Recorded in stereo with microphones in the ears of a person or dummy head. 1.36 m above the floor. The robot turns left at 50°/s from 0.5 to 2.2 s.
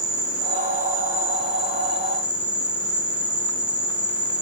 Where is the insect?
70° right, 1.9 m; by 4.4 s 155° right, 1.9 m.